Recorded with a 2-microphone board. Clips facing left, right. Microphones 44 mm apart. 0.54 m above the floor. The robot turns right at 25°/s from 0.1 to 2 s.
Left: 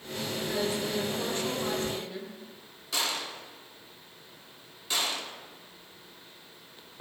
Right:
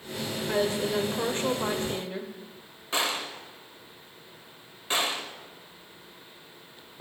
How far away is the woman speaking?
About 2 m.